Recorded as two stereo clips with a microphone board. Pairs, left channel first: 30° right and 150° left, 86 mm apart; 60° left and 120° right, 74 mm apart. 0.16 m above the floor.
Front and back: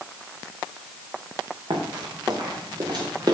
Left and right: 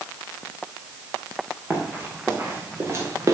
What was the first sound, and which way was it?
Running footsteps, 170° left.